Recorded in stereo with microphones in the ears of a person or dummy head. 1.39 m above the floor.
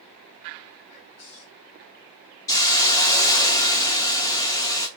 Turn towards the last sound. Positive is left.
turn(degrees=20)  # may be behind; listen again after turning